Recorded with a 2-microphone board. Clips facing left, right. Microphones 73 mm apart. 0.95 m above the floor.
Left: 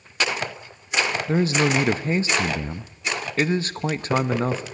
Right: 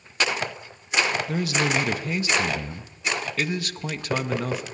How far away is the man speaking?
About 0.9 m.